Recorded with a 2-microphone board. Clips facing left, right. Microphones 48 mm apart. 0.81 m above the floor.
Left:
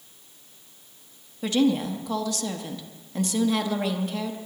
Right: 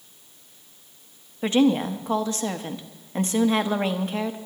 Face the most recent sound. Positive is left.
turn(degrees=-35)  # may be behind; listen again after turning